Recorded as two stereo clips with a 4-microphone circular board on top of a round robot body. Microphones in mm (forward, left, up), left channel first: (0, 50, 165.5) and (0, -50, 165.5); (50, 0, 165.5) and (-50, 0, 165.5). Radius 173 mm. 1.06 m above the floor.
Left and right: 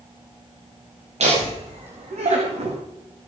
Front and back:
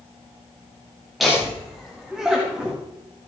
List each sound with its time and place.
1.2 s laughter: 90° right, 2.5 m; by 2.8 s 100° right, 1.6 m